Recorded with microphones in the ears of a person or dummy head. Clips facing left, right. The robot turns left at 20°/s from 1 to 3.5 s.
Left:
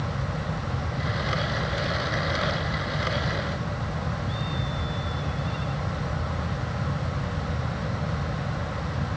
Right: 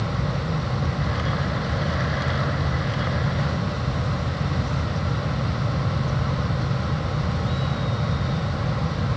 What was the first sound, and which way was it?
Only background noise.